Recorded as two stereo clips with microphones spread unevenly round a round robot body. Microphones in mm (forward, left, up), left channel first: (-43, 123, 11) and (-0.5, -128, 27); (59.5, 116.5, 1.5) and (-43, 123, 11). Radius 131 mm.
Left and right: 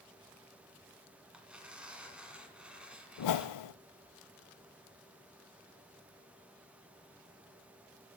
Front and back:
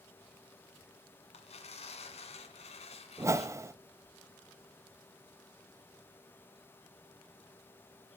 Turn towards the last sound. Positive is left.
turn(degrees=110)